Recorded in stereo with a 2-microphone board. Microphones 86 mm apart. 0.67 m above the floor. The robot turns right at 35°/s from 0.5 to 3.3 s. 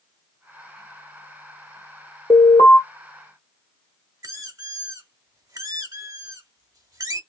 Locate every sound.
2.3 s an alarm: 75° left (ahead or behind), 1.8 m
4.2 s a squeak: 40° right (ahead or behind), 1.0 m